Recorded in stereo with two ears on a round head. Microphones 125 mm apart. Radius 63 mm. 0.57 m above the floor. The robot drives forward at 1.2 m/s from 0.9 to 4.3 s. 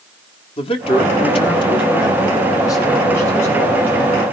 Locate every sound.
0.6 s a man speaking: 40° left (ahead or behind), 1.5 m; by 4.2 s 15° left (ahead or behind), 4 m